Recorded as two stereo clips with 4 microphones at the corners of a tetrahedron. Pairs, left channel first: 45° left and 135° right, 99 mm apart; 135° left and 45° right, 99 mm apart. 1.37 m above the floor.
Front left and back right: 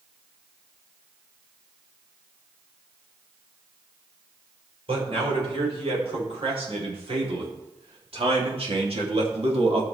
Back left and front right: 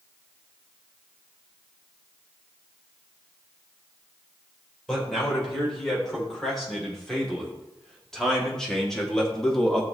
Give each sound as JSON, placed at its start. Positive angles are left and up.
{"t": 4.9, "sound": "a man speaking", "azimuth_deg": -140, "distance_m": 6.0}